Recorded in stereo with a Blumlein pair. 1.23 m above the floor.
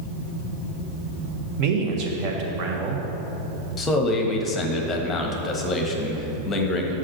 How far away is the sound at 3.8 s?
About 1.2 m.